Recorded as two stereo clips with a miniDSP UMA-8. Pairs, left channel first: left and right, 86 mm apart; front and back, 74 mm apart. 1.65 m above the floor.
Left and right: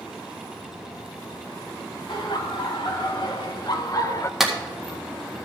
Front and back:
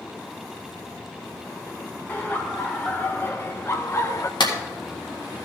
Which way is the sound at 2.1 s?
65° left.